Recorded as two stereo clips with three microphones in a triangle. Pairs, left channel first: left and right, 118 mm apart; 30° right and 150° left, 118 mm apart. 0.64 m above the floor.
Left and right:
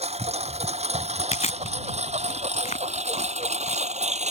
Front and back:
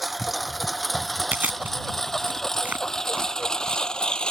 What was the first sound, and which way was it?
A lawn mower, 120° right.